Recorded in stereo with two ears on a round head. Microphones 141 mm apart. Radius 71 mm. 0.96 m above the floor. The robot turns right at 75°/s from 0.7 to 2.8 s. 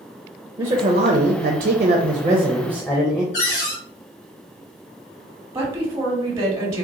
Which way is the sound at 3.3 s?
75° left (ahead or behind).